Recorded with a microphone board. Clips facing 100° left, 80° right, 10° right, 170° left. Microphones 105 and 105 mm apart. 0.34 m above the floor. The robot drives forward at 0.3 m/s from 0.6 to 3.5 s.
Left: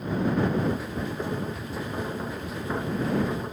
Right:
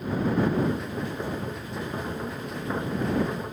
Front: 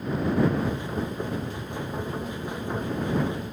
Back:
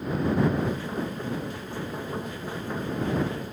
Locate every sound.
Only background noise.